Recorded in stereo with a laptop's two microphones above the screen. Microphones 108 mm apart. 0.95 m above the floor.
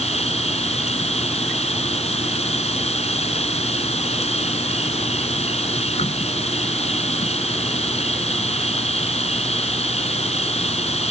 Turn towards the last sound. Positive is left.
turn(degrees=75)  # may be behind; listen again after turning